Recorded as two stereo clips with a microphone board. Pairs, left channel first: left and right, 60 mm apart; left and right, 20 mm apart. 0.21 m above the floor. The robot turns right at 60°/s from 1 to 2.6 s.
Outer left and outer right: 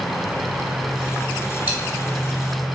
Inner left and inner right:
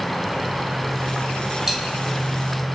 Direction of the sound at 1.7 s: 30° right (ahead or behind).